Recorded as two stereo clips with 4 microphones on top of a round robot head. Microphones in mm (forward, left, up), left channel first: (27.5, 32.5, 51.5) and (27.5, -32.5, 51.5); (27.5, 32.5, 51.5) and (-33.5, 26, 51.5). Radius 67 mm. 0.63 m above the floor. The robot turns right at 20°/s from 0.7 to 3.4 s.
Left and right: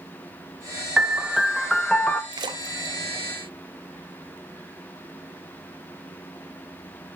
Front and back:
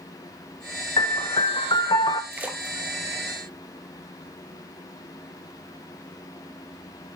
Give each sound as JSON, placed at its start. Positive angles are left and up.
{"t": 1.0, "sound": "a piano", "azimuth_deg": -10, "distance_m": 0.7}
{"t": 2.3, "sound": "a splash", "azimuth_deg": -110, "distance_m": 0.6}